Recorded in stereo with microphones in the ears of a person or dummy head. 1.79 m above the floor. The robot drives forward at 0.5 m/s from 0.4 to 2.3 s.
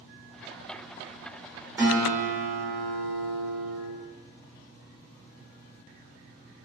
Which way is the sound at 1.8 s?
15° right (ahead or behind).